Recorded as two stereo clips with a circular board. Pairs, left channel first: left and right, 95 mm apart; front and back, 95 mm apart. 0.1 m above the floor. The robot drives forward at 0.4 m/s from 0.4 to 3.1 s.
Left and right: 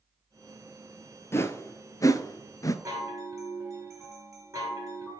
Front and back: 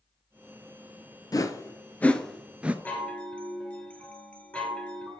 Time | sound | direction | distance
1.3 | a whoosh | 35° left | 0.7 m
2.9 | a chime | 60° right | 1.9 m